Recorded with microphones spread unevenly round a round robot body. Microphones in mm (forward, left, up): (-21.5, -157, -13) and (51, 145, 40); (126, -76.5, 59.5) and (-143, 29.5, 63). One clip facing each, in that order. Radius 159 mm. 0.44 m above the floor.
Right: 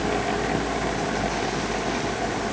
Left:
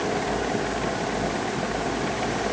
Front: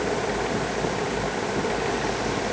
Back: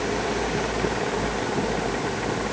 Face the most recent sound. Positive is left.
No sound to turn to.